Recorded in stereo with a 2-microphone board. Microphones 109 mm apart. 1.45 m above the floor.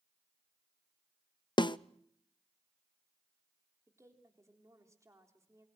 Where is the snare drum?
45° left (ahead or behind), 0.5 m.